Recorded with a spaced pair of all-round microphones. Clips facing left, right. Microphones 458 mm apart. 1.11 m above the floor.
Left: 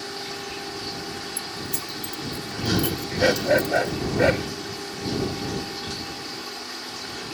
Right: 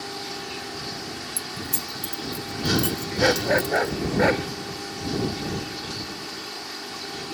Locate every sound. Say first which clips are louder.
1.4 s keys jangling: left 1 dB; 85° right; by 4.0 s 80° right
3.2 s a dog barking: left 1 dB; 50° left (ahead or behind)